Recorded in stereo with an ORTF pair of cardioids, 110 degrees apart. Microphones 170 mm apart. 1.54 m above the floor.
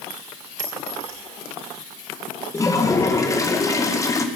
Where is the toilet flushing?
20° left, 2 m.